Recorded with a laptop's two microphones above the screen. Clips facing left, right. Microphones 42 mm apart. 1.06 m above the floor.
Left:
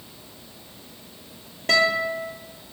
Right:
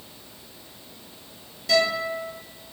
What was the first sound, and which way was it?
A guitar, 55° left (ahead or behind).